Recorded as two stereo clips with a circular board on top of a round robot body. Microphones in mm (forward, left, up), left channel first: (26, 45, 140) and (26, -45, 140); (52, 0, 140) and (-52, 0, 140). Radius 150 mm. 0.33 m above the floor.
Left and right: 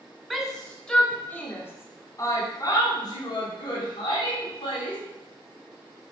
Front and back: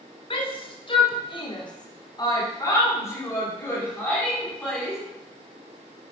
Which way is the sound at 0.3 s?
Straight ahead.